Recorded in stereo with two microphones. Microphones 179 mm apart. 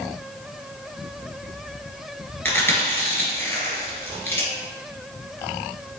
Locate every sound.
2.5 s chewing: 10° left (ahead or behind), 1.6 m